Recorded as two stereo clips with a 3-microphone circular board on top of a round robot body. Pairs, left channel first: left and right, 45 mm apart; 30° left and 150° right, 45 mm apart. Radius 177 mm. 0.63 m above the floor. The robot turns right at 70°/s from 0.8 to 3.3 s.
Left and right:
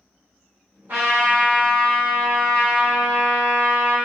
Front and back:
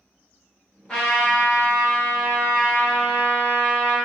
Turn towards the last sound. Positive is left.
turn(degrees=125)